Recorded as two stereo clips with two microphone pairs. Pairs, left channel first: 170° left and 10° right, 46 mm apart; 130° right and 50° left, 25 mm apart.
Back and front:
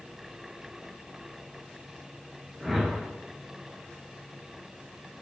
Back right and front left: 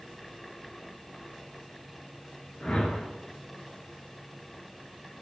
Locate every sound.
2.6 s a whoosh: 95° right, 0.5 m